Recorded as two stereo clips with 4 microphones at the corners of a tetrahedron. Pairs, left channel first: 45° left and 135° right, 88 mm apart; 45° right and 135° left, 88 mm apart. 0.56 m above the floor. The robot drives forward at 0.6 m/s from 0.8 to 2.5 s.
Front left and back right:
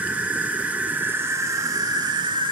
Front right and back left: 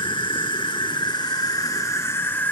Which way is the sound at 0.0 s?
65° right.